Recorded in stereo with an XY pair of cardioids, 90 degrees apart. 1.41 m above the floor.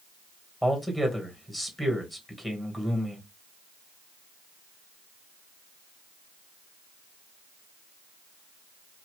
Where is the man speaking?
Straight ahead, 1.5 m.